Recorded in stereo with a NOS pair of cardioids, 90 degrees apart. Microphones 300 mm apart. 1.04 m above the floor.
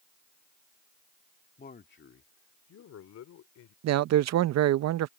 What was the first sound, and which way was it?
A man speaking, 30° left.